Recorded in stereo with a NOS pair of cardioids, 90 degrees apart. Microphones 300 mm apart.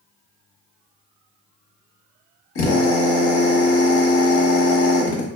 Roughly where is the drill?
Ahead left.